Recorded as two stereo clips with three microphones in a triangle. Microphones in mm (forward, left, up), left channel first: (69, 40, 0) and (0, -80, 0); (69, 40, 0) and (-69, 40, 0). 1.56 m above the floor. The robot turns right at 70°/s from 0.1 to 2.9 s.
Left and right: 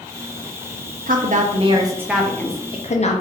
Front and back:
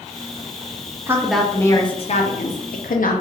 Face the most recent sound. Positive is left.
turn(degrees=20)